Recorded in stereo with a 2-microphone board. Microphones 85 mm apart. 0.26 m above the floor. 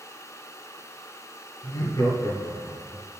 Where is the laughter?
35° left (ahead or behind), 5.5 m; by 3.0 s 50° left (ahead or behind), 4 m.